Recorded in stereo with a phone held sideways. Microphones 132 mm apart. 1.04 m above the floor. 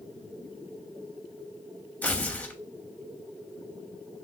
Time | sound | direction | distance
2.0 | tearing paper | 10° left (ahead or behind) | 0.6 m